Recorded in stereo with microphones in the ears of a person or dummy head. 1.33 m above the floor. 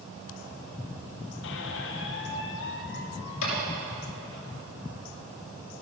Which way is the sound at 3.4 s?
90° left.